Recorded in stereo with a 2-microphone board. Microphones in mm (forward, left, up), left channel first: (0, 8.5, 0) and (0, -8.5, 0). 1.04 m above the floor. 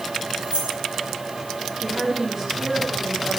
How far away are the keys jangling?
About 4 m.